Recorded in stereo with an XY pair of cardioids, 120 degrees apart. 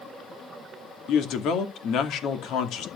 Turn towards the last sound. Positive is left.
turn(degrees=70)